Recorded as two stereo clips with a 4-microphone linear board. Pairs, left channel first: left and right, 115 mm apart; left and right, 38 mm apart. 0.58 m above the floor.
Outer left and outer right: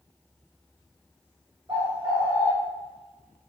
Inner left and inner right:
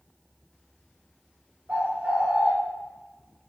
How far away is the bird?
About 1.2 m.